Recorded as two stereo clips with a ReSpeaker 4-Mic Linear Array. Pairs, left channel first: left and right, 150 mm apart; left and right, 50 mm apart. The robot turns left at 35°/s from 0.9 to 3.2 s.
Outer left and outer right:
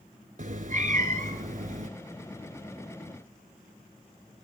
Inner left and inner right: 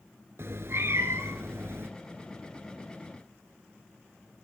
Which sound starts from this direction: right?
A cat meowing, at 0.4 s.